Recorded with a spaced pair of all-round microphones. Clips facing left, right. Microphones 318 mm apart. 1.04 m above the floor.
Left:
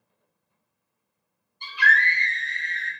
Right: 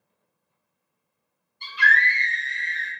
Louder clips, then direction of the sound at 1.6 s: Even; 20° right (ahead or behind).